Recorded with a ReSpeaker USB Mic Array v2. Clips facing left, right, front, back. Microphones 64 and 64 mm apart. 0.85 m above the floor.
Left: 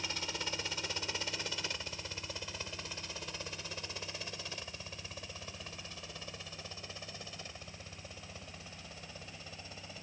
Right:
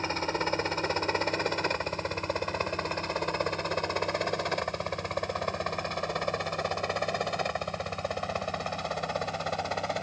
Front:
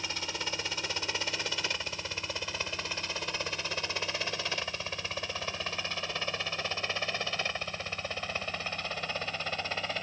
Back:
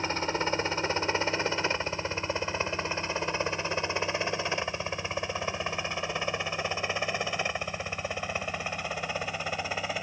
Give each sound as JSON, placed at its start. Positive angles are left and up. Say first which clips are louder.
{"t": 0.0, "sound": "a helicopter", "louder": "right 11 dB, back 8 dB", "azimuth_deg": -130}